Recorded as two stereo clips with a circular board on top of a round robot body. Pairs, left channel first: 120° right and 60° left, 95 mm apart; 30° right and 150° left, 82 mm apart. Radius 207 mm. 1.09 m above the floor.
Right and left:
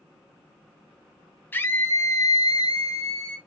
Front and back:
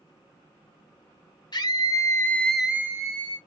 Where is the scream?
50° right, 1.1 m; by 3.4 s straight behind, 1.0 m.